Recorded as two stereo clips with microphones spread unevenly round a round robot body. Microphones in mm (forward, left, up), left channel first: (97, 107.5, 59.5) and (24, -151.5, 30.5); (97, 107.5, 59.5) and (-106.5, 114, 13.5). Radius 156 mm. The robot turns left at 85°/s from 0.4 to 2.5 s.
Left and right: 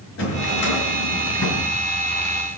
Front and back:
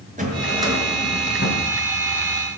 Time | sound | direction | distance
0.2 | a drawer | 125° left | 5.5 m